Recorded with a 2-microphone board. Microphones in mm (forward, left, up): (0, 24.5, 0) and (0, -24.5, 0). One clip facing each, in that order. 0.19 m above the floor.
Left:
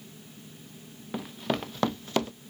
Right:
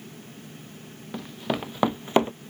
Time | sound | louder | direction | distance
1.1 | running footsteps | right 1 dB | 5° left (ahead or behind) | ?